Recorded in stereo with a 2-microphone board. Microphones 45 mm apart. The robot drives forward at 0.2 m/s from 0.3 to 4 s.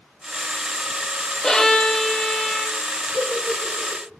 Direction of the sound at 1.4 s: 15° left (ahead or behind).